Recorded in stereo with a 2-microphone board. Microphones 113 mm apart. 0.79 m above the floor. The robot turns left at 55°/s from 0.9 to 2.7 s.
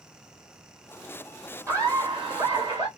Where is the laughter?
30° right, 1.7 m; by 2.9 s 90° right, 1.7 m.